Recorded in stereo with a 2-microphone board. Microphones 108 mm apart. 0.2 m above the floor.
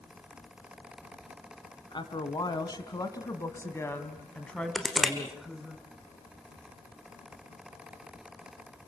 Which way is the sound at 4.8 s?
Centre (ahead or behind).